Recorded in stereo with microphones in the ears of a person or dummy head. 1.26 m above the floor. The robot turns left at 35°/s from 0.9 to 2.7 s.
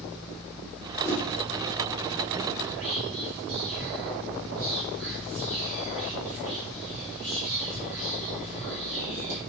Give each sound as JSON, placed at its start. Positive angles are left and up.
{"t": 1.0, "sound": "a whoosh", "side_deg": 10, "distance_m": 0.9}
{"t": 2.6, "sound": "whispering", "side_deg": -85, "distance_m": 1.8}